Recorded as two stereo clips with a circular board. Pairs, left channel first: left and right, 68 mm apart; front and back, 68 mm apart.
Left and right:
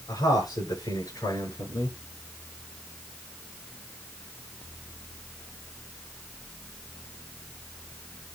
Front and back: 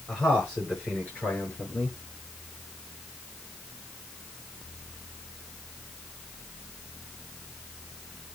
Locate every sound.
0.1 s a man speaking: 75° left, 5.5 m; by 2.0 s 65° left, 6 m